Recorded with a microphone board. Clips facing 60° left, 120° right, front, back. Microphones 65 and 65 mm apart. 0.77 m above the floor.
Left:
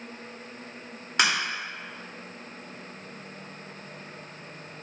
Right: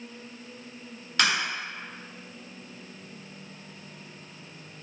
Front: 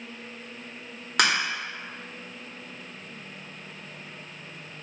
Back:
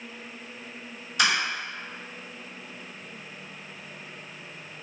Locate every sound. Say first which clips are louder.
1.2 s a crack: left 1 dB, front 1 dB; 10° right, 1.5 m